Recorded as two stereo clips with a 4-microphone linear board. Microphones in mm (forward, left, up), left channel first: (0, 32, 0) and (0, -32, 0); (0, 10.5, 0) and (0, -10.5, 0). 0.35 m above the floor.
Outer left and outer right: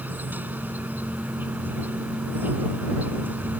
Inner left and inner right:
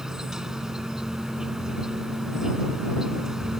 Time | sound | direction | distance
0.0 | an insect | 30° right (ahead or behind) | ?